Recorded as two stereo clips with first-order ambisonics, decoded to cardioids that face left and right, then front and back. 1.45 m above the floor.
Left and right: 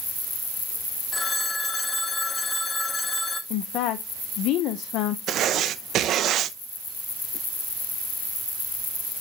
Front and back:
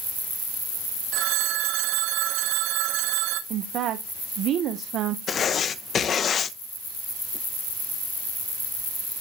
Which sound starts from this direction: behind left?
A woman speaking, at 3.5 s.